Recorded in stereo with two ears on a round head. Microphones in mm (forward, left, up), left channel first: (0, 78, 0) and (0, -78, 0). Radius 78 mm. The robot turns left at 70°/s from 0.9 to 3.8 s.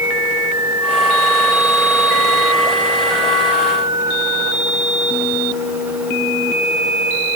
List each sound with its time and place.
Only background noise.